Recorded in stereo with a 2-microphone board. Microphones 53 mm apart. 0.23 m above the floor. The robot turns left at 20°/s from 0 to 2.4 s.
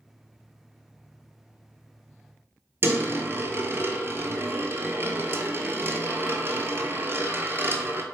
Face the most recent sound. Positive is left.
turn(degrees=-45)  # may be behind; listen again after turning